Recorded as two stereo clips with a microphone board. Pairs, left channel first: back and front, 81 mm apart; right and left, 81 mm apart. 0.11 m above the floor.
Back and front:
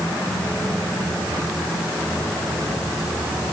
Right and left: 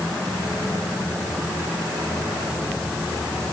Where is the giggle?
No giggle in this recording.